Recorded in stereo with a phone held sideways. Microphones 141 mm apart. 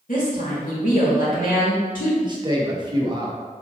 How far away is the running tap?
I don't hear a running tap.